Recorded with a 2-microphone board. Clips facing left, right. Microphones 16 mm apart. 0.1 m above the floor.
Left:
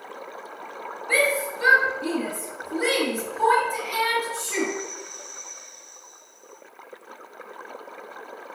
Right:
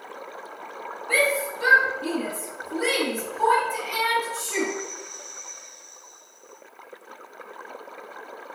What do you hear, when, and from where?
1.1 s a shout: 30° left (ahead or behind), 1.7 m